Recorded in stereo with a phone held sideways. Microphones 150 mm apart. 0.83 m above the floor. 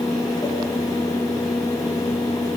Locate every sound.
0.0 s a fan: 25° left (ahead or behind), 4.5 m